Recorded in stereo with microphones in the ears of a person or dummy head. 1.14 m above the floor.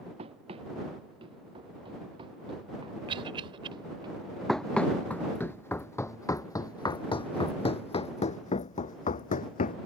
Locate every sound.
0.2 s running footsteps: 35° right (ahead or behind); by 4.1 s 30° right (ahead or behind)
3.1 s a cough: 30° right (ahead or behind)
4.5 s running footsteps: centre (ahead or behind); by 9.8 s 40° left (ahead or behind)